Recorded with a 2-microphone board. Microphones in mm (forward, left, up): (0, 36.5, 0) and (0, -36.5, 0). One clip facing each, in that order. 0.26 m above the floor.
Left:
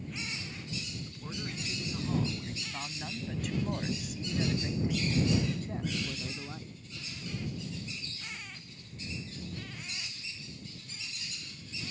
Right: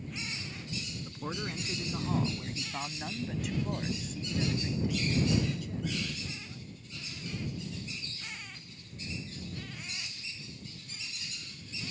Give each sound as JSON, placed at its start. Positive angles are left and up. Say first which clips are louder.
{"t": 1.1, "sound": "a man speaking", "louder": "right 3 dB", "side_deg": -40}